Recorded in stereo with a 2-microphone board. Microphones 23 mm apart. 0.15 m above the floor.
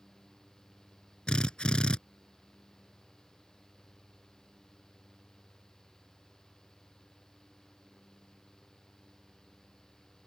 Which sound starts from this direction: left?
A drill, at 1.3 s.